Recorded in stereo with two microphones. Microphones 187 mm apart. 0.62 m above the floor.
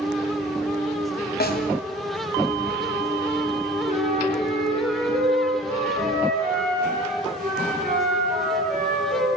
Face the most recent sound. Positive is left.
turn(degrees=-50)  # may be behind; listen again after turning